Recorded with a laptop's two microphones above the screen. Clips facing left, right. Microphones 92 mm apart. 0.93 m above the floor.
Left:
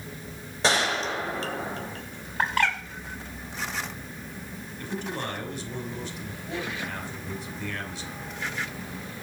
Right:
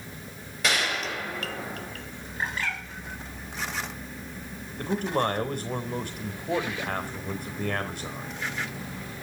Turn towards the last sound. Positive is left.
turn(degrees=-55)  # may be behind; listen again after turning